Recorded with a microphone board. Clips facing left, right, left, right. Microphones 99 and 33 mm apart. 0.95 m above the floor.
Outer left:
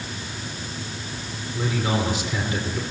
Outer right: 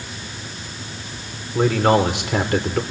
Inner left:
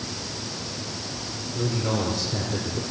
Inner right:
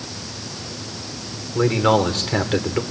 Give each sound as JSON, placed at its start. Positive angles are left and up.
{"t": 1.6, "sound": "a man speaking", "side_deg": -65, "distance_m": 3.0}